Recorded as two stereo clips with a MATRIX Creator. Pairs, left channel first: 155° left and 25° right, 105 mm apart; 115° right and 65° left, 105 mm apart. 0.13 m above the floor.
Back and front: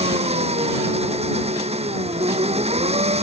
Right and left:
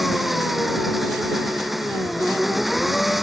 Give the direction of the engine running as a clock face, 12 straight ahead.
1 o'clock.